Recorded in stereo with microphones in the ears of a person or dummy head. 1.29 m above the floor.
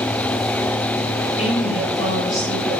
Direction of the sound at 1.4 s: 35° left (ahead or behind).